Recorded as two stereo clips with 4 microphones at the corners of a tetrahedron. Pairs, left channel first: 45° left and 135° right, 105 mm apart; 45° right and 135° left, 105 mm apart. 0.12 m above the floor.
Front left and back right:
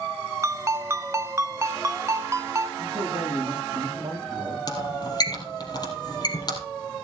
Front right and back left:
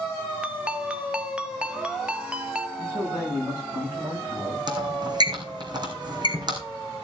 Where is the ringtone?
155° right, 0.7 m.